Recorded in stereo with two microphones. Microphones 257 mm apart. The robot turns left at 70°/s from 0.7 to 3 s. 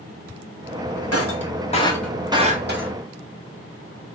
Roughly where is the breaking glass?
Left.